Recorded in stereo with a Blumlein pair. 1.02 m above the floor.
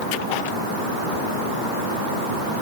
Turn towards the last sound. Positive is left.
No sound to turn to.